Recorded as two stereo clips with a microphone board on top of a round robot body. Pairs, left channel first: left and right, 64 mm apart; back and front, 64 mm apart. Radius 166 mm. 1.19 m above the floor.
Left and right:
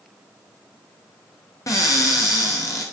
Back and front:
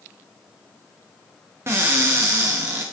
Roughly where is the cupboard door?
Ahead left.